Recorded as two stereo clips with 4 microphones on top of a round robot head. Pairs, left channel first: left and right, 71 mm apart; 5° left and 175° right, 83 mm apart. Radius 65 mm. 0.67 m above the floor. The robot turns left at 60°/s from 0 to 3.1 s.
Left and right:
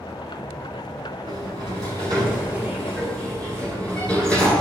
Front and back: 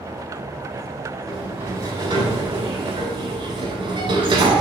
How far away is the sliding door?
About 9.5 m.